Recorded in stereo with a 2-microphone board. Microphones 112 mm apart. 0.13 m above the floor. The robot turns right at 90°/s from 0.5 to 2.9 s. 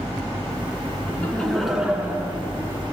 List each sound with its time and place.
1.1 s laughter: 15° left (ahead or behind), 1.1 m; by 2.8 s 20° right (ahead or behind), 1.1 m